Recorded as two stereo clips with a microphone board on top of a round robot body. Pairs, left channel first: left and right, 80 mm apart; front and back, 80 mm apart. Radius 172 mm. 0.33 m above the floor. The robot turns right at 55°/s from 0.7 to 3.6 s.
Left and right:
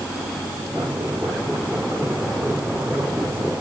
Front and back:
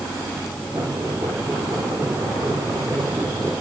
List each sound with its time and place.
Only background noise.